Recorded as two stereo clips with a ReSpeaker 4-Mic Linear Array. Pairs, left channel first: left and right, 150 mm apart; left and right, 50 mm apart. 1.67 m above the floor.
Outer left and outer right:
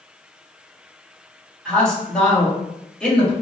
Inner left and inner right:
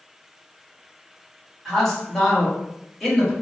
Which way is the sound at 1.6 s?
5° left (ahead or behind).